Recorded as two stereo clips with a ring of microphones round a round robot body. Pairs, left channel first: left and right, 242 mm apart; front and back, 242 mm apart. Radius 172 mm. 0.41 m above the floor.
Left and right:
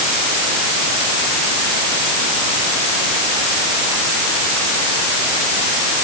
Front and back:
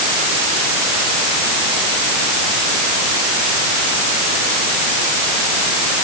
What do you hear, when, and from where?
Only background noise.